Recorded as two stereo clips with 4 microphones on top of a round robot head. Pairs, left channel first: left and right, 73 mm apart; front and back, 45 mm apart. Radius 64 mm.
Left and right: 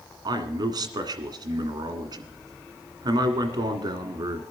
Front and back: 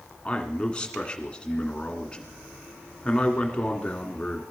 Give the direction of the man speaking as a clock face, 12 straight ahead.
2 o'clock.